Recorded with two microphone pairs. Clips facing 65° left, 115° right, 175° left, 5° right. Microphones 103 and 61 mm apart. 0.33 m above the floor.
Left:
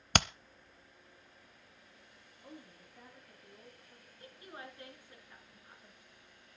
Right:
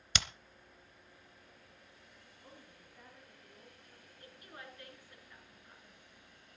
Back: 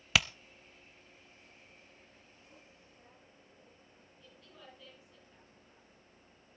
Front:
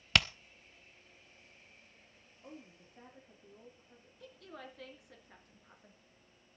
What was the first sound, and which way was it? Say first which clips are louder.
Hammering: left 9 dB, even; 90° left.